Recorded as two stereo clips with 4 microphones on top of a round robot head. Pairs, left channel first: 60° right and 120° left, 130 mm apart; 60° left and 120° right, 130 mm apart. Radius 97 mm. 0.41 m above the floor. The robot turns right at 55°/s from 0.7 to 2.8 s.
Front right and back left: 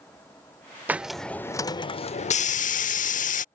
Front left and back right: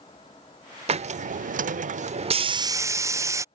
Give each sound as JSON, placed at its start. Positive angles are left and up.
{"t": 0.9, "sound": "a hiss", "azimuth_deg": -160}